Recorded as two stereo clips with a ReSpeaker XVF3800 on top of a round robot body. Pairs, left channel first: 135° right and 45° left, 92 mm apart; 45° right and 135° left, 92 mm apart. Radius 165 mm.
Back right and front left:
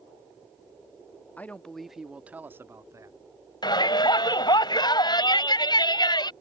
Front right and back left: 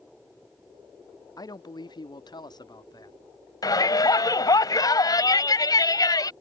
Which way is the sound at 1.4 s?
70° right.